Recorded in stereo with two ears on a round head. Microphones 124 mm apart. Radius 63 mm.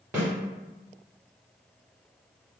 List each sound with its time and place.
0.1 s a snare drum: 20° right (ahead or behind), 1.9 m